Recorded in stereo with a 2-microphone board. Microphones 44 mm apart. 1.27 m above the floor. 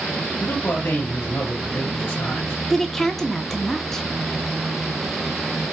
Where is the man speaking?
80° left, 2 m.